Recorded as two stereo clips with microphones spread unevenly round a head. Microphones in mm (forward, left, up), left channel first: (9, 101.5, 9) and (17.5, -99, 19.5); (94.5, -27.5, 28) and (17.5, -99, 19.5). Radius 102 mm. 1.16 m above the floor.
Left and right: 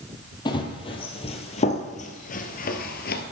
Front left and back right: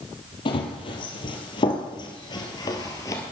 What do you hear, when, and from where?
0.5 s running footsteps: 25° left, 2 m; by 3.2 s 90° left, 1.4 m